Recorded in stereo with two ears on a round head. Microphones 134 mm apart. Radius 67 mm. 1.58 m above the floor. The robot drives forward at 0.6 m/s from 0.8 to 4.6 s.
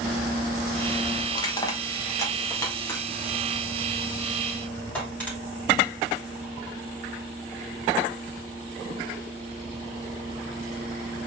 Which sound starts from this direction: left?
Crushing, at 1.3 s.